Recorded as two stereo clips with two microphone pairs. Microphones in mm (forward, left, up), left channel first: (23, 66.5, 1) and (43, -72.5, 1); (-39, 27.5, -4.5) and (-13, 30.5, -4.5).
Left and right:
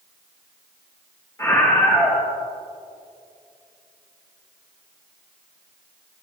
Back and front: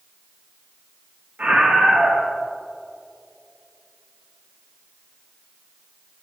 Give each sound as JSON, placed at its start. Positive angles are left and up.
{"t": 1.4, "sound": "a scream", "azimuth_deg": 30, "distance_m": 3.0}